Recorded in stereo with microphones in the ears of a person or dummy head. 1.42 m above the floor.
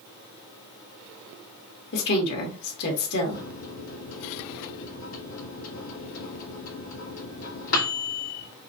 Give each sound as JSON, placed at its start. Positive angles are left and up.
{"t": 1.9, "sound": "a woman speaking", "side_deg": 50, "distance_m": 1.9}
{"t": 3.3, "sound": "a microwave", "side_deg": 85, "distance_m": 2.0}